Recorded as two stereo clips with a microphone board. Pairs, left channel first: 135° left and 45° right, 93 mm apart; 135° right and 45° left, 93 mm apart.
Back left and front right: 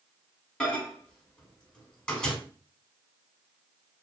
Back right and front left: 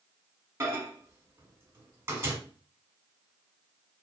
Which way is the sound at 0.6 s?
65° left.